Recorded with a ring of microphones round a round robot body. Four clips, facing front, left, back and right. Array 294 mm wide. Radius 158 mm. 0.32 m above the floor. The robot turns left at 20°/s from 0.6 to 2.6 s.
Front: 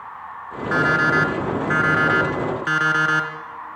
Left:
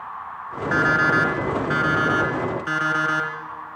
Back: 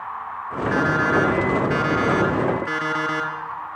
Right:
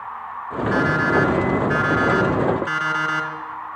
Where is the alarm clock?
40° left, 3 m; by 3.3 s straight ahead, 3 m.